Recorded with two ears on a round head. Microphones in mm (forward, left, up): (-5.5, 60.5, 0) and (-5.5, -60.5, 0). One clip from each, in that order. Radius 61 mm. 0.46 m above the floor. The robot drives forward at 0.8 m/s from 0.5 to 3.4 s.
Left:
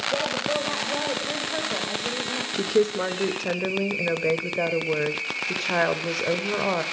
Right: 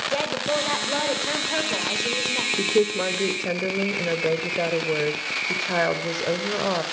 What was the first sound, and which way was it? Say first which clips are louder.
A woman speaking: right 1 dB; 45° right (ahead or behind).